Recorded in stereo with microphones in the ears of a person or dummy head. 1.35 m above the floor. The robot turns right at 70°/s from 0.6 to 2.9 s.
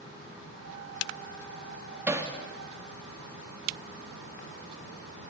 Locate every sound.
2.1 s hammering: 10° right (ahead or behind), 2.5 m; by 2.3 s 25° right (ahead or behind), 2.5 m